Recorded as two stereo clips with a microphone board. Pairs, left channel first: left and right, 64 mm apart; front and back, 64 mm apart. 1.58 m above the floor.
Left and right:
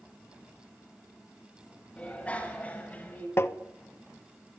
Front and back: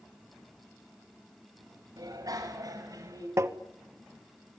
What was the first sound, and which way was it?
A bicycle bell, 160° left.